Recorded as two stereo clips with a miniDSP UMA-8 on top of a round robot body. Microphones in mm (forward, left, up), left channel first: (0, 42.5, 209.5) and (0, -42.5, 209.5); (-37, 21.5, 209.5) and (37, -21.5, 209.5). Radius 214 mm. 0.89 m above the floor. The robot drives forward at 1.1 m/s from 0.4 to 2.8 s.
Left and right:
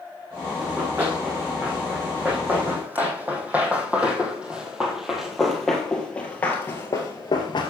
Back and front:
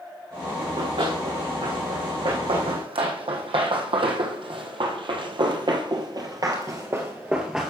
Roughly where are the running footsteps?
Ahead.